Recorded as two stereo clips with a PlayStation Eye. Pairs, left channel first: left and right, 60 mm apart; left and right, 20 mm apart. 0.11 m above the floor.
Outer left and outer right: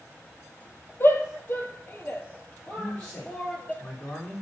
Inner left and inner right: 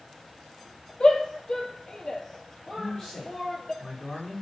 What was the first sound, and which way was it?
A shout, 40° left (ahead or behind).